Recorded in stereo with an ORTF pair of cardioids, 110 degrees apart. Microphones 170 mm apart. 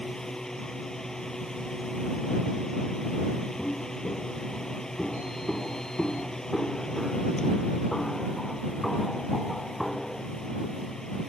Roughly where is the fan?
Ahead.